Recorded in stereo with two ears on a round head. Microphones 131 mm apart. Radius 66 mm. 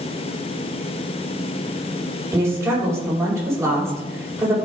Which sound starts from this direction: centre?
A woman speaking, at 2.3 s.